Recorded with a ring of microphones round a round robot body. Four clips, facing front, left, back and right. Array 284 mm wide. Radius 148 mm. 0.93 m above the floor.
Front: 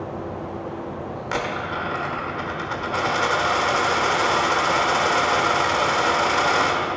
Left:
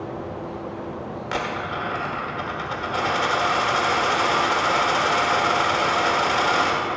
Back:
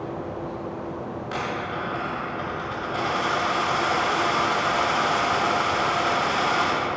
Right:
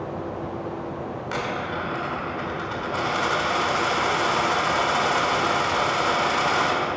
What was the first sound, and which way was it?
A dropped coin, 15° left.